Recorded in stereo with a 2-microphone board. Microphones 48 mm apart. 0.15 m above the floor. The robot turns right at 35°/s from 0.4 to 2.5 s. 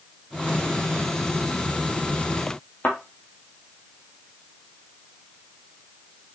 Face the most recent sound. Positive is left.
turn(degrees=40)  # may be behind; listen again after turning